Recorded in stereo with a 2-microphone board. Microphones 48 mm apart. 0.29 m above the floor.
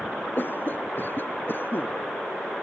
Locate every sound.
0.4 s a cough: 45° left (ahead or behind)